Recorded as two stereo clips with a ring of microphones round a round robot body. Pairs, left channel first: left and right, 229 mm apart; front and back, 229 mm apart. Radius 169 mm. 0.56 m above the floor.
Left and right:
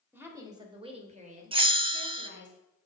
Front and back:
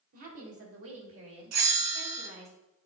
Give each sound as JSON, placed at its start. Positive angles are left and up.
{"t": 0.1, "sound": "a woman speaking", "azimuth_deg": -170, "distance_m": 2.5}
{"t": 1.5, "sound": "a bell", "azimuth_deg": -160, "distance_m": 0.7}